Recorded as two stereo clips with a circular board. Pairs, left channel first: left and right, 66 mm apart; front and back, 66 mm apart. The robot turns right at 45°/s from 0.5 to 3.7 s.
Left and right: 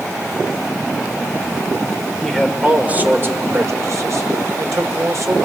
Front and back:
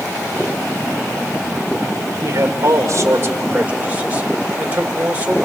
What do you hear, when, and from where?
2.2 s a man speaking: 175° left, 1.9 m; by 5.4 s 115° right, 1.9 m